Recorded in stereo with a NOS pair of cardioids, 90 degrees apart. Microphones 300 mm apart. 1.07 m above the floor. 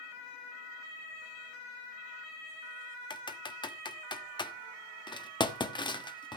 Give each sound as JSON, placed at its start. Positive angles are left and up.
{"t": 3.1, "sound": "typing on a keyboard", "azimuth_deg": 15, "distance_m": 1.2}